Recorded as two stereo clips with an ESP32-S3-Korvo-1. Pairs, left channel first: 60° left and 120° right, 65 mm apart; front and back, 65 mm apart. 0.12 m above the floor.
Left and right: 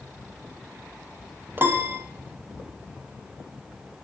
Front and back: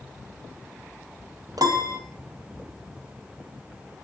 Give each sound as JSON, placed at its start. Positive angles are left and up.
{"t": 1.6, "sound": "a piano", "azimuth_deg": -175, "distance_m": 1.2}